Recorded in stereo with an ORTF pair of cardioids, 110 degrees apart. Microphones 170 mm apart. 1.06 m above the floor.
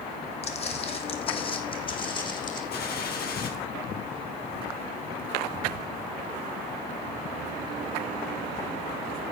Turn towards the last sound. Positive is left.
turn(degrees=70)